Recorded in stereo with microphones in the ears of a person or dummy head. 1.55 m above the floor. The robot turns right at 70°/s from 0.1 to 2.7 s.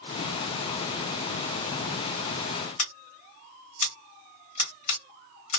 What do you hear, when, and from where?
2.8 s scissors: 45° left (ahead or behind), 0.8 m